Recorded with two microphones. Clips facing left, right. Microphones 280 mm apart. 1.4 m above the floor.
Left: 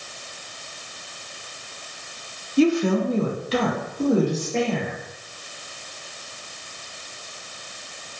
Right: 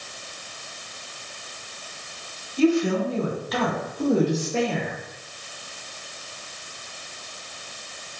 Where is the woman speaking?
70° left (ahead or behind), 0.7 m; by 4.9 s 15° right (ahead or behind), 1.1 m.